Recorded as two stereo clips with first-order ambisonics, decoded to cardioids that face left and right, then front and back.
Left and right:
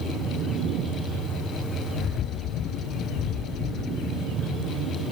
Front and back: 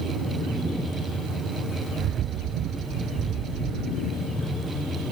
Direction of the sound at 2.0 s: 135° left.